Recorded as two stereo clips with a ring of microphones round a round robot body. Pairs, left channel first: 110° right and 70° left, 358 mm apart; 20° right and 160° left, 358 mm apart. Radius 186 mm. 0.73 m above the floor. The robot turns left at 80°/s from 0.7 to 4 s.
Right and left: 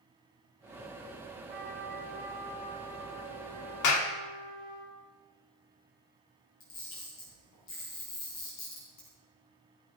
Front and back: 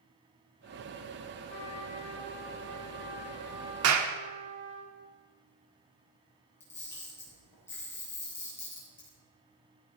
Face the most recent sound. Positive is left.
turn(degrees=-105)